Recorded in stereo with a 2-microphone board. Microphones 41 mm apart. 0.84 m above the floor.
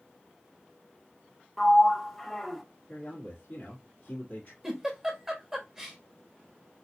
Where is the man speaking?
40° left (ahead or behind), 1.7 m.